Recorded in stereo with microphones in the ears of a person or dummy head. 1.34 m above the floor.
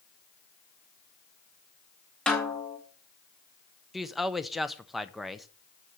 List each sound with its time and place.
2.3 s a snare drum: 5° left (ahead or behind), 0.9 m
3.9 s a woman speaking: centre (ahead or behind), 0.7 m